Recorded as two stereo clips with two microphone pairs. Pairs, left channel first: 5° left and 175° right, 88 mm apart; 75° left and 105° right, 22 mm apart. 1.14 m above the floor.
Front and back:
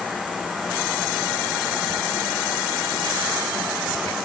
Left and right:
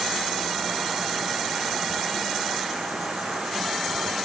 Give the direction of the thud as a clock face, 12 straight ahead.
I don't hear a thud.